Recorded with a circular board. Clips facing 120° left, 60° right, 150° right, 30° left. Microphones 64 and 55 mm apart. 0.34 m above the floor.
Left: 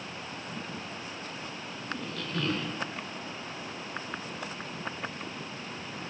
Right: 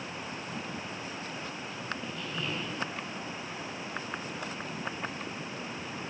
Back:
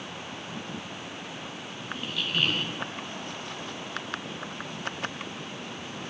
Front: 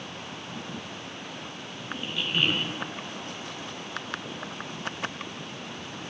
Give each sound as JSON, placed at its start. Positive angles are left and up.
{"t": 1.9, "sound": "a squeak", "azimuth_deg": 105, "distance_m": 2.5}